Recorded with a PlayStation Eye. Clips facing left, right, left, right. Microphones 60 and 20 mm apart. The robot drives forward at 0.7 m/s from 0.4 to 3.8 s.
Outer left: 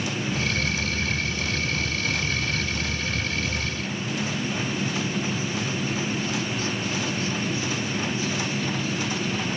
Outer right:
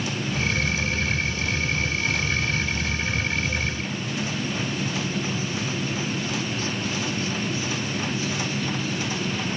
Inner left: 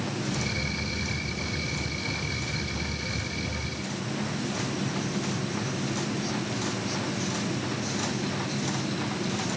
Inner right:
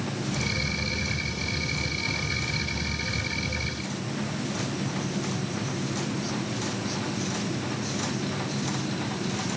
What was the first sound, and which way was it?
Only background noise.